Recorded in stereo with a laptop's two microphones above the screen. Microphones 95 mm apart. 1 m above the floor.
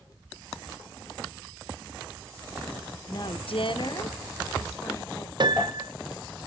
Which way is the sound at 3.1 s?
35° left (ahead or behind).